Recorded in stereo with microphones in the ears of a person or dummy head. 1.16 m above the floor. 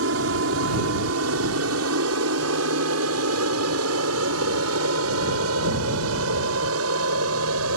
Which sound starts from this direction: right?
An aircraft, at 0.0 s.